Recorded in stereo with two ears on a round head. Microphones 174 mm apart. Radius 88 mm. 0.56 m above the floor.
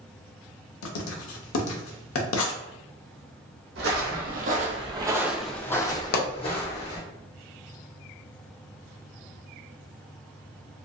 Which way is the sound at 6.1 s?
50° left (ahead or behind).